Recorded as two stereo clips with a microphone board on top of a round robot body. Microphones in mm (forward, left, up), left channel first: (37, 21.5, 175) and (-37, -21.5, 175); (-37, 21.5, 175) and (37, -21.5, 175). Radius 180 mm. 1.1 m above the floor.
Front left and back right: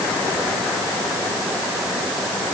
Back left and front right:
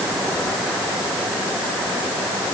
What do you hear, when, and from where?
Only background noise.